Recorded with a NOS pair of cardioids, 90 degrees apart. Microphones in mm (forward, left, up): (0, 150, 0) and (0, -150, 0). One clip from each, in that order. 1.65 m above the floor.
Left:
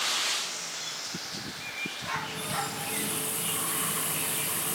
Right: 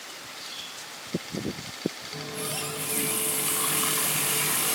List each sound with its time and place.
2.1 s a running tap: 40° right, 5.5 m